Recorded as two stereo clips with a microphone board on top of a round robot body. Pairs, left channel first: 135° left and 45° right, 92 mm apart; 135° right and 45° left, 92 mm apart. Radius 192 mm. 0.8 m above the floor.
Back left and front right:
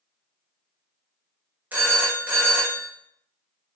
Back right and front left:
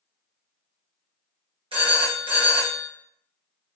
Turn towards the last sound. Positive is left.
turn(degrees=30)